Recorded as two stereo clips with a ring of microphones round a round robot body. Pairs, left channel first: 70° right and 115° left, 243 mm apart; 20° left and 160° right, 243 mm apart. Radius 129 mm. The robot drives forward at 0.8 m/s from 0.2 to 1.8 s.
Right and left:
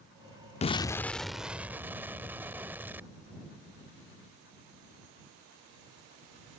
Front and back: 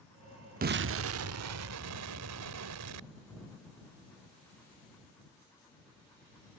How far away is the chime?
I don't hear a chime.